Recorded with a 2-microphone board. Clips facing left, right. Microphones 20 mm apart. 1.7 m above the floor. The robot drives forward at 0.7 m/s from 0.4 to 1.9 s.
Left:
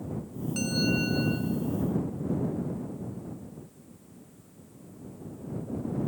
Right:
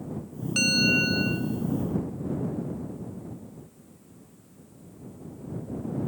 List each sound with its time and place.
0.6 s a bell: 40° right (ahead or behind), 0.9 m; by 1.5 s 30° right (ahead or behind), 1.3 m